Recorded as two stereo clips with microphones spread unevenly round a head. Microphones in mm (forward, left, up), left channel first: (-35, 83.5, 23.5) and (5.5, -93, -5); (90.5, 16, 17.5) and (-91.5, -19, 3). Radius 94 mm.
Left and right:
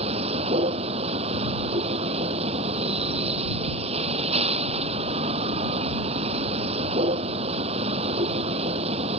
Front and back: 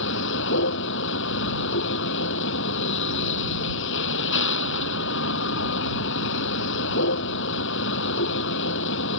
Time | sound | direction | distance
0.0 | a vehicle | 15° right | ?